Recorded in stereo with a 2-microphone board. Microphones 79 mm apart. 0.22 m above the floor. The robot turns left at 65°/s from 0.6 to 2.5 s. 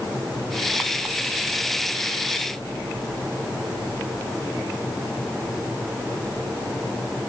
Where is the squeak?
No squeak in this recording.